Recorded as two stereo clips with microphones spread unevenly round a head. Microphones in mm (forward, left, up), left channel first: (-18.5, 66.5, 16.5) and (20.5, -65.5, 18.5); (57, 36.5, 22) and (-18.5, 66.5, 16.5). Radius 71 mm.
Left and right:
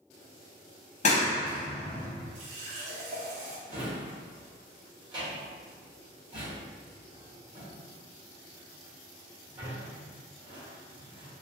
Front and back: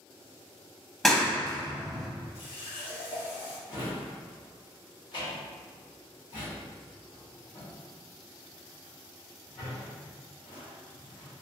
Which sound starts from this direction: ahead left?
A clap, at 1.0 s.